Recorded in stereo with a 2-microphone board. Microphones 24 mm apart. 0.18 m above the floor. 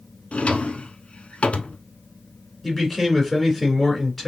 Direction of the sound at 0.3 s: 55° left (ahead or behind).